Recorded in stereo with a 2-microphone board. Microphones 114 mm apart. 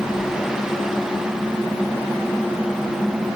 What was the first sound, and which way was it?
Only background noise.